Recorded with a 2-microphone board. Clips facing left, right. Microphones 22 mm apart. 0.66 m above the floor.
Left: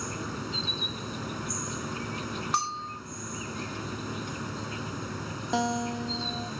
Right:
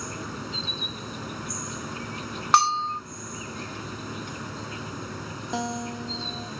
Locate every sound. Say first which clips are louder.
0.0 s an insect: even; 5° left (ahead or behind)
2.5 s a bell: right 11 dB; 50° right (ahead or behind)
5.5 s a guitar: left 3 dB; 15° left (ahead or behind)